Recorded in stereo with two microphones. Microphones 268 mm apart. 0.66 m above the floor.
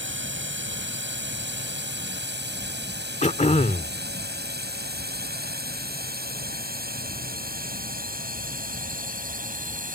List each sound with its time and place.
0.0 s a drone: 45° right (ahead or behind); by 9.9 s 30° right (ahead or behind)
3.2 s throat clearing: 25° left (ahead or behind)